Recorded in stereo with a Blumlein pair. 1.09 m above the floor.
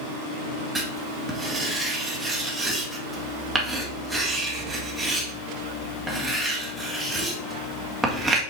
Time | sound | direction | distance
0.8 | writing | 5° right | 2 m